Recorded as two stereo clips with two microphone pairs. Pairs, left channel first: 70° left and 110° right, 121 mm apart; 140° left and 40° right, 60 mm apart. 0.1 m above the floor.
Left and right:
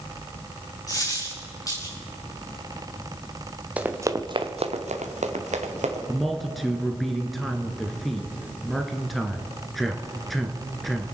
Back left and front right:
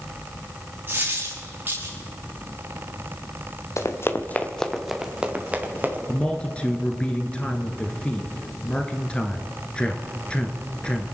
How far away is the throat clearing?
No throat clearing in this recording.